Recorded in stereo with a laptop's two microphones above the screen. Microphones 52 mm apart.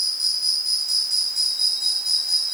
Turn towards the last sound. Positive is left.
turn(degrees=-5)  # may be behind; listen again after turning